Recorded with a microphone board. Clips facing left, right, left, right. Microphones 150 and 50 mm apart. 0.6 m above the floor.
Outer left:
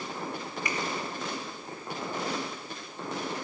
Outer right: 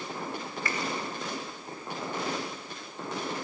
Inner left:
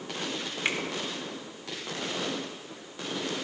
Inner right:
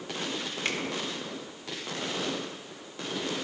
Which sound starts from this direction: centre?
A finger snap, at 0.7 s.